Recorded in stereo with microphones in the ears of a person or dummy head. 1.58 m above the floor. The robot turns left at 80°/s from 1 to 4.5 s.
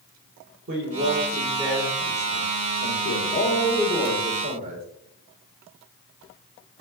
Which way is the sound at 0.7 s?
125° right.